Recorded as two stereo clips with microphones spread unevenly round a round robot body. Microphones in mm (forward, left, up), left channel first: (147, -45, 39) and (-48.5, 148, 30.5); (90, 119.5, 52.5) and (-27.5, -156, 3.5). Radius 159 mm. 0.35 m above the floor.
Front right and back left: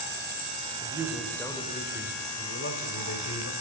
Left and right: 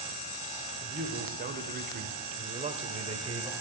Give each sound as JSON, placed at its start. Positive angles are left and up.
{"t": 0.8, "sound": "a man speaking", "azimuth_deg": -150, "distance_m": 1.5}